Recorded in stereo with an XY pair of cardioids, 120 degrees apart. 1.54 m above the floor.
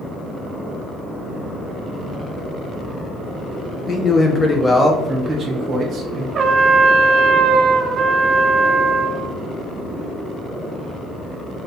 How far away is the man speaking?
About 1.0 m.